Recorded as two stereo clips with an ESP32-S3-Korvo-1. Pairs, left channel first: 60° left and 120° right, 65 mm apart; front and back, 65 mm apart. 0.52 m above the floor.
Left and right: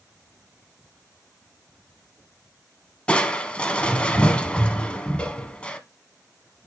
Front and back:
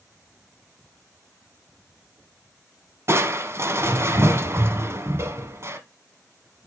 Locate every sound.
3.1 s crushing: 135° left, 1.2 m